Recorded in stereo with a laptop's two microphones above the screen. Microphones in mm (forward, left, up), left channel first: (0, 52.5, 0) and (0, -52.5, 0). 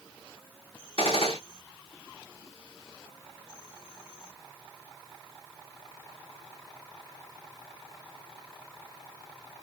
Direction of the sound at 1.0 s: 65° left (ahead or behind).